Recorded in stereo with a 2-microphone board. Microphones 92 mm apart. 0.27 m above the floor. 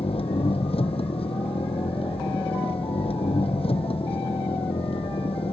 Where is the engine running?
75° left (ahead or behind).